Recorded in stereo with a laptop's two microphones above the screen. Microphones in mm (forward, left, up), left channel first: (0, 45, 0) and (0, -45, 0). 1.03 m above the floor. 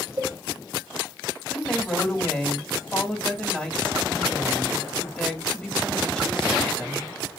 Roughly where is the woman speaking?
Centre.